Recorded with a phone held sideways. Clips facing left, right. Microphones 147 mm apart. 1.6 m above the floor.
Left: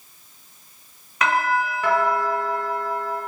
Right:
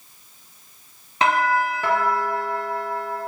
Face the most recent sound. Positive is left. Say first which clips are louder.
# right 2 dB
turn(degrees=-30)  # may be behind; listen again after turning